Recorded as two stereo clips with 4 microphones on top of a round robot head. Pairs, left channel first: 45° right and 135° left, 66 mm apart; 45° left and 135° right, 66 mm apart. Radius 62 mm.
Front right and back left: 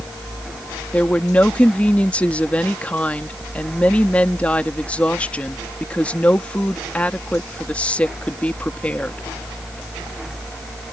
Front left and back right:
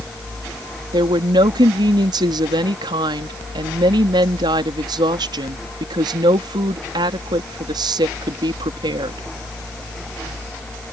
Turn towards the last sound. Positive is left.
turn(degrees=-120)